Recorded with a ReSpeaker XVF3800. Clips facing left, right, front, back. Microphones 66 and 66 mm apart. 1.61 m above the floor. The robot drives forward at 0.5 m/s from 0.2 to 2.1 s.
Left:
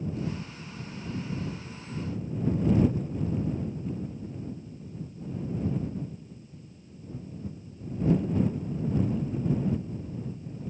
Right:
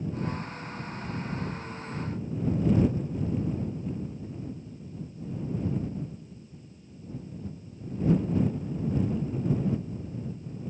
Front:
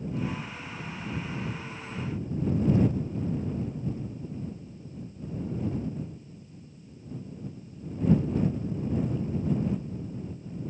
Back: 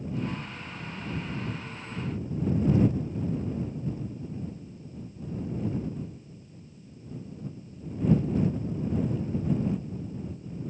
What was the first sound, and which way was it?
Only background noise.